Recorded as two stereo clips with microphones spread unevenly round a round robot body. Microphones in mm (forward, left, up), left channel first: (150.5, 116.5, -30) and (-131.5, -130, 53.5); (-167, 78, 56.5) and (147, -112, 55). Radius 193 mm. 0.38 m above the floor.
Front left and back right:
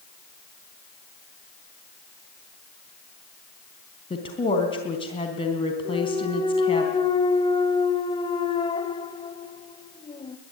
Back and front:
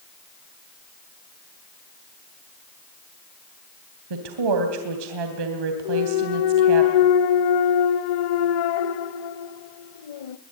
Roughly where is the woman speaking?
Ahead right.